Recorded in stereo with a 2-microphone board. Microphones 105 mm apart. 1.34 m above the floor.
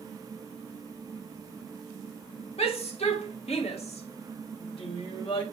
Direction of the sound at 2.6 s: 75° left (ahead or behind).